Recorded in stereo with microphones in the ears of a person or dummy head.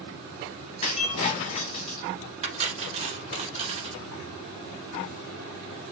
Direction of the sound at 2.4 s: 40° right (ahead or behind).